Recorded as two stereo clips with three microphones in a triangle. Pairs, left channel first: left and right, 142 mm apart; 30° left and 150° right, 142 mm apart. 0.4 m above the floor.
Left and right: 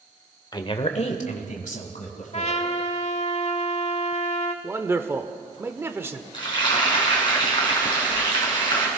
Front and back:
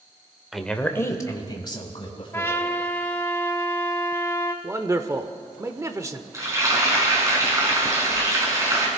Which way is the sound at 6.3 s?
145° left.